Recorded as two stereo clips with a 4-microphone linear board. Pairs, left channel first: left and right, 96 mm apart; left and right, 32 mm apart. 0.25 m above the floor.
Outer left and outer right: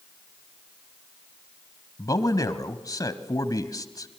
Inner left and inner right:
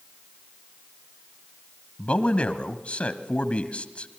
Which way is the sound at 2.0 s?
40° left (ahead or behind).